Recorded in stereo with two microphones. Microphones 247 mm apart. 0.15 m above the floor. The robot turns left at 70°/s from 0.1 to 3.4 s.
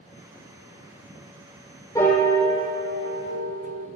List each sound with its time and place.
1.9 s a piano: 15° left, 2.5 m; by 3.9 s 90° right, 2.5 m